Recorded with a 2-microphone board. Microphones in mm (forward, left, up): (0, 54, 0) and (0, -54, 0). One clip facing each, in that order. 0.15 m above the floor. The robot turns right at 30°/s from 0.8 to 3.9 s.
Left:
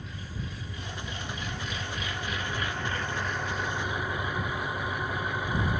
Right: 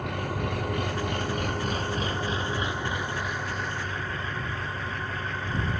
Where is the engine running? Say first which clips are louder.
Right 10 dB; 80° right; by 5.8 s 15° left.